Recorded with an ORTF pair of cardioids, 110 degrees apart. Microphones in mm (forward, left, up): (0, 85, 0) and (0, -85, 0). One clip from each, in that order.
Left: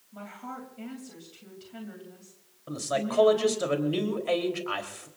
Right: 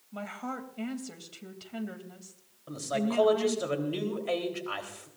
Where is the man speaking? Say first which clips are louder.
Left 2 dB; 15° left, 3.5 m.